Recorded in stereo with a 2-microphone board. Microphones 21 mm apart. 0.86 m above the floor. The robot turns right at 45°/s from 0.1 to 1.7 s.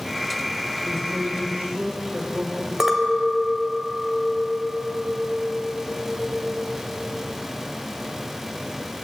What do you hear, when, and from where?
0.8 s a man speaking: 130° right, 3.5 m; by 2.7 s 95° right, 3.5 m
2.8 s a clink: 25° right (ahead or behind), 2 m